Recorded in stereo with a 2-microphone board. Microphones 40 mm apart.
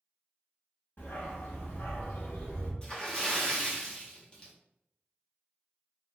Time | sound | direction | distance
1.0 | a dog barking | 60° left (ahead or behind) | 1.1 m
2.8 | a splash | 20° left (ahead or behind) | 0.8 m